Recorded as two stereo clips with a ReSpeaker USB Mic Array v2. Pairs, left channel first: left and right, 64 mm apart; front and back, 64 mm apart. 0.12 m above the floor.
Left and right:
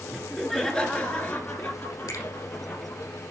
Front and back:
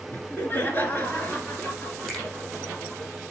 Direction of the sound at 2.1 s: 85° left.